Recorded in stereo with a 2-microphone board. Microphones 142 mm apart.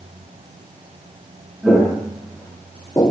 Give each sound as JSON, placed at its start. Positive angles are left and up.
{"t": 1.6, "sound": "footsteps", "side_deg": 0, "distance_m": 3.0}